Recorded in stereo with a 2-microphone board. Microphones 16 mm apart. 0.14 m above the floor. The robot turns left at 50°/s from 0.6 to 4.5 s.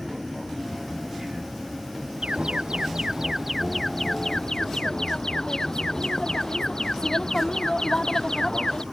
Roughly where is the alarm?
Right.